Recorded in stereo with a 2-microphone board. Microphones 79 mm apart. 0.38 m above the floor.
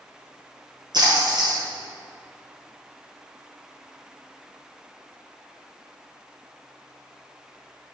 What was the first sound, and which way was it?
A splash, 60° right (ahead or behind).